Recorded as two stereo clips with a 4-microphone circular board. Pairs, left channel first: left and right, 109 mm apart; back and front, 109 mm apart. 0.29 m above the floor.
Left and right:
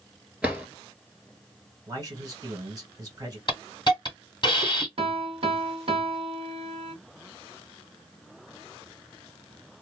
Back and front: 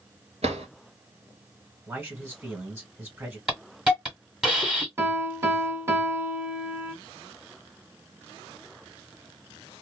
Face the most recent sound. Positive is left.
turn(degrees=-65)